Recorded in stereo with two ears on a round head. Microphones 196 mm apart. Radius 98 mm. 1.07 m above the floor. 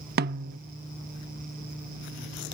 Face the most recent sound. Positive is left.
turn(degrees=-45)  # may be behind; listen again after turning